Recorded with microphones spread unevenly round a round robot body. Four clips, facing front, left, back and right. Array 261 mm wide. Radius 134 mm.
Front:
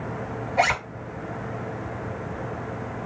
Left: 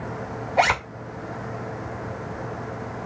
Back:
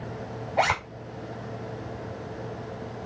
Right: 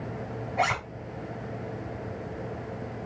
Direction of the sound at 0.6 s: 90° left.